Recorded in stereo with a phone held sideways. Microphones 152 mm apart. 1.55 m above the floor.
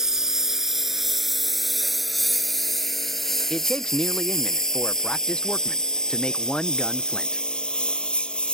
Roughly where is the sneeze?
No sneeze in this recording.